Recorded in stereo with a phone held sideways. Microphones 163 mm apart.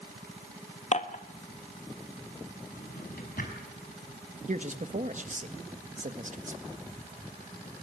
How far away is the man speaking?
About 1.6 m.